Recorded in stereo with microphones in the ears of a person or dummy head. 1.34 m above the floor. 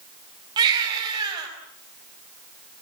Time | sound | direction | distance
0.6 | a baby crying | 25° right (ahead or behind) | 7 m